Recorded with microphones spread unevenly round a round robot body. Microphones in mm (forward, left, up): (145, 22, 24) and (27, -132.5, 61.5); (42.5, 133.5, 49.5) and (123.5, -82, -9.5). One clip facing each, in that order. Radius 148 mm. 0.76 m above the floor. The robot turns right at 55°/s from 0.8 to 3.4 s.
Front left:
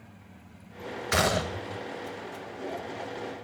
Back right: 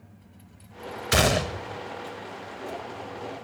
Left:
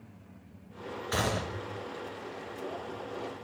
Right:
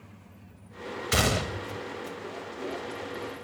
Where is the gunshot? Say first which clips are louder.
Back right 4 dB, right 4 dB; 75° right, 0.7 m; by 1.8 s 35° right, 0.7 m.